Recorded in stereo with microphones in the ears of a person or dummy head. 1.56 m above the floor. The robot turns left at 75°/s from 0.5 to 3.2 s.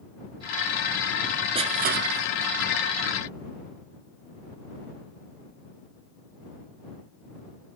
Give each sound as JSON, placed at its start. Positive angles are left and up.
{"t": 1.6, "sound": "crushing", "side_deg": -30}